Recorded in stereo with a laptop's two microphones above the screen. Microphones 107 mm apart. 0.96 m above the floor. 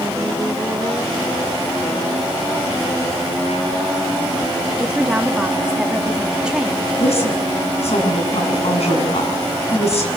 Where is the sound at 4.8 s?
5° right (ahead or behind), 2.0 m.